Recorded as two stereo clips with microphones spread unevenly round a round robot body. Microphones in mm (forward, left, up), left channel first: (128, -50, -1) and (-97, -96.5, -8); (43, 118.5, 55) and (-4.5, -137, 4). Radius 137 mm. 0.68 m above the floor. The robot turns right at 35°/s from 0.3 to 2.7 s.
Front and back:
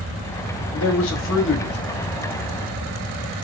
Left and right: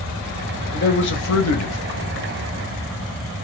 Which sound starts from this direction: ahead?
A man speaking, at 0.7 s.